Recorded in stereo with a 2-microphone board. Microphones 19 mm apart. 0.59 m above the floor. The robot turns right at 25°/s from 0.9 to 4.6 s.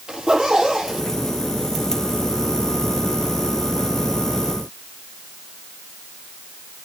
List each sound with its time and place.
0.1 s a zipper: 45° right (ahead or behind), 6 m; by 1.0 s 40° right (ahead or behind), 6 m